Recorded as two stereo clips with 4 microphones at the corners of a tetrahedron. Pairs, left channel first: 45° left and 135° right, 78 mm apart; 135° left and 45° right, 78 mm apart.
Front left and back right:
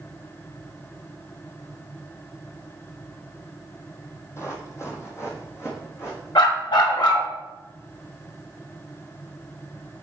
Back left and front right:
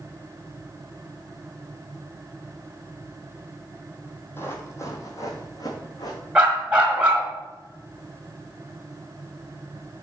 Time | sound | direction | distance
4.4 | running footsteps | 85° left | 1.4 m
6.3 | a dog barking | 30° left | 1.7 m